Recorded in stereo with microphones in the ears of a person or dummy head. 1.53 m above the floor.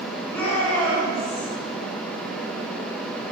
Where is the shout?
5° left (ahead or behind), 5 m.